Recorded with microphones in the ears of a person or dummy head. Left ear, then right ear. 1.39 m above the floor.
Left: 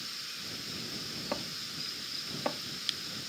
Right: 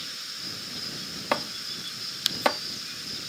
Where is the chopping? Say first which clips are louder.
Right 11 dB; 65° right (ahead or behind).